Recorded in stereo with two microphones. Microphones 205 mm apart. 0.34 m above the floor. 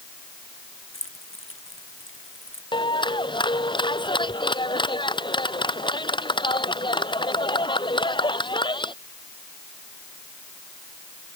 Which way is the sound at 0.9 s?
80° left.